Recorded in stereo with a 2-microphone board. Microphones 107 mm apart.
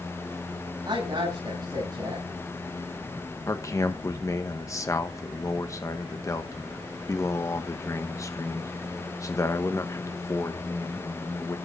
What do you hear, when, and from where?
0.8 s a woman speaking: 40° right (ahead or behind), 7.5 m
3.5 s a man speaking: 30° left (ahead or behind), 1.1 m